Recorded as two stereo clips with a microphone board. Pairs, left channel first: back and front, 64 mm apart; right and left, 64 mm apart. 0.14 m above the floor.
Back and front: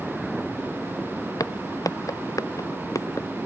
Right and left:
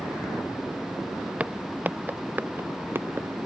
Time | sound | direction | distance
1.4 | footsteps | 160° left | ?